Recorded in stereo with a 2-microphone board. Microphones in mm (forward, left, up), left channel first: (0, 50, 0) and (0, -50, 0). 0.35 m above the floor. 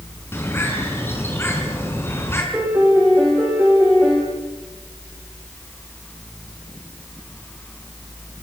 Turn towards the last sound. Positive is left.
turn(degrees=-20)  # may be behind; listen again after turning